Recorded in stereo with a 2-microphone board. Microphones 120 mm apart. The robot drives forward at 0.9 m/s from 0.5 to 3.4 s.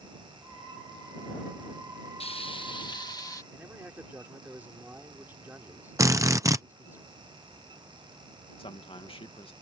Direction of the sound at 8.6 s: 50° left (ahead or behind).